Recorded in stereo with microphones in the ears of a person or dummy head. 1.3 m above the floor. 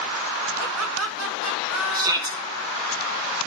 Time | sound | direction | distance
0.6 | laughter | 75° right (ahead or behind) | 2.5 m
1.9 | a shout | 20° right (ahead or behind) | 1.7 m